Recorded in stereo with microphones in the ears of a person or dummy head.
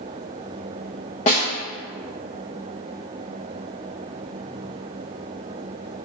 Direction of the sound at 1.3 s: 25° left (ahead or behind).